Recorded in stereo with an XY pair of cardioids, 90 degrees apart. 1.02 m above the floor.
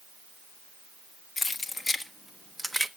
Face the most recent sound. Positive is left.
turn(degrees=-5)